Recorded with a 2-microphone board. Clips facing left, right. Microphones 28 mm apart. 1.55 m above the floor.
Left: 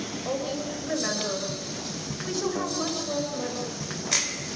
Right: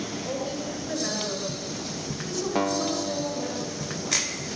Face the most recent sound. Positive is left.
turn(degrees=-45)  # may be behind; listen again after turning